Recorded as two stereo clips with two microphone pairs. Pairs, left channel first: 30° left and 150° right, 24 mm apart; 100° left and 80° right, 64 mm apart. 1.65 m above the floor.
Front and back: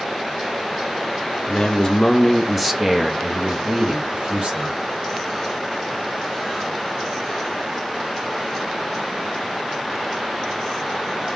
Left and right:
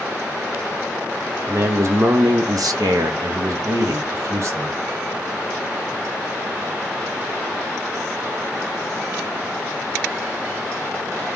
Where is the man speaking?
35° right, 1.0 m; by 4.8 s 125° right, 1.4 m.